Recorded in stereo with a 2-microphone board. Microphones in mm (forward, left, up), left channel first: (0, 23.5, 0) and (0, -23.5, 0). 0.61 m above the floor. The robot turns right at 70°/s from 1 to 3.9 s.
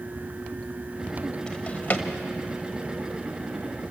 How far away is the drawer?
About 1.3 m.